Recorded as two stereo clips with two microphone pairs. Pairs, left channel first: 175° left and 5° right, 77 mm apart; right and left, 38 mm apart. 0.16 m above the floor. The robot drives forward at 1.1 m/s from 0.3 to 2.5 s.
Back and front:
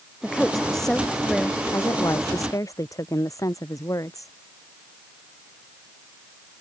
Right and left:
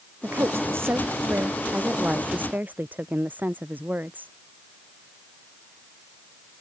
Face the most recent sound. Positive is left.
turn(degrees=130)